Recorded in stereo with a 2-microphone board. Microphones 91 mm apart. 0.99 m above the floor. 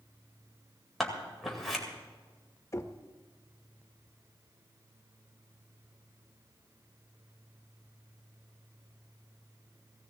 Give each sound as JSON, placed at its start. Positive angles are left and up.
{"t": 1.0, "sound": "scissors", "side_deg": 0, "distance_m": 2.0}
{"t": 2.7, "sound": "knocking", "side_deg": 30, "distance_m": 0.7}